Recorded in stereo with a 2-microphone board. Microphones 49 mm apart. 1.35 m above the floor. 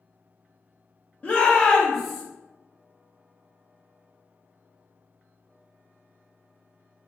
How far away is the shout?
About 0.6 m.